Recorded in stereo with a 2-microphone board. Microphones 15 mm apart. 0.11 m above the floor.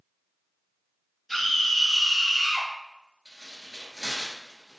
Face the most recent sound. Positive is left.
turn(degrees=-45)  # may be behind; listen again after turning